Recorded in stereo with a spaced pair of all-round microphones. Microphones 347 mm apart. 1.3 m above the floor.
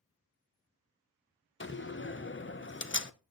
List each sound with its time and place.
1.6 s a door slam: 35° left (ahead or behind), 0.6 m